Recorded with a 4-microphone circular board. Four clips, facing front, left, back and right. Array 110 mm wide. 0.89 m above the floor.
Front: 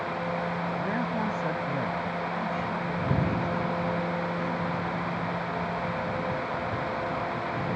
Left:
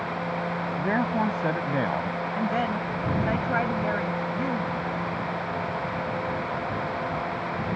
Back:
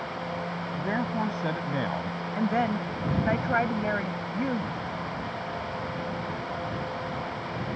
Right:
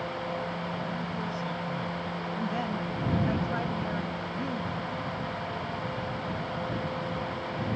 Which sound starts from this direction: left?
A man speaking, at 0.8 s.